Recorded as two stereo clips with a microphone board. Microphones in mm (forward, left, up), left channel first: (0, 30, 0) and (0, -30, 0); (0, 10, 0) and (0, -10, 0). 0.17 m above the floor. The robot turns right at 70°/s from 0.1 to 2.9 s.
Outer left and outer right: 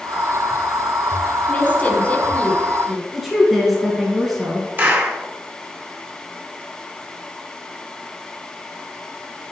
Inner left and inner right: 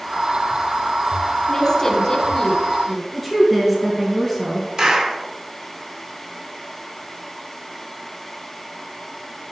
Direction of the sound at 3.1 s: 5° right (ahead or behind).